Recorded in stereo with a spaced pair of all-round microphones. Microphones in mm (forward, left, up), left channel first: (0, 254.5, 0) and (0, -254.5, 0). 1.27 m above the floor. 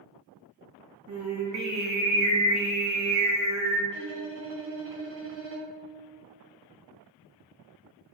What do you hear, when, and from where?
1.1 s singing: 35° right (ahead or behind), 0.6 m
3.9 s a violin: 40° right (ahead or behind), 0.6 m